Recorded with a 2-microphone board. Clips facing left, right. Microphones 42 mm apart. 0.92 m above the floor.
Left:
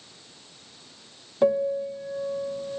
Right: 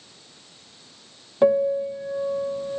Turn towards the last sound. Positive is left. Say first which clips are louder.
# right 4 dB
turn(degrees=-15)  # may be behind; listen again after turning